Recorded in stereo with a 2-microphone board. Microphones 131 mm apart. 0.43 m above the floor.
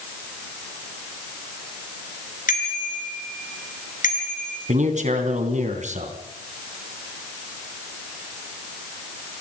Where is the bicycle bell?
80° left, 4.5 m.